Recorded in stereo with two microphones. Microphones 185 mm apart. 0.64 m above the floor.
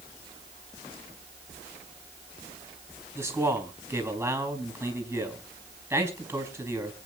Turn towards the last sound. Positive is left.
turn(degrees=-10)  # may be behind; listen again after turning